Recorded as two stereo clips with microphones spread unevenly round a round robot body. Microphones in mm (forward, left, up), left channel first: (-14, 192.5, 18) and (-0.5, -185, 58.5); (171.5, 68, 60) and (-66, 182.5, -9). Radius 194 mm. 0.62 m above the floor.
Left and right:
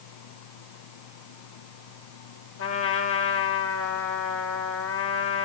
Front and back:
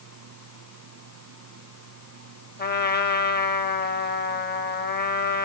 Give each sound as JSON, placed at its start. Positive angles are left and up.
{"t": 2.6, "sound": "a trumpet", "azimuth_deg": 30, "distance_m": 2.0}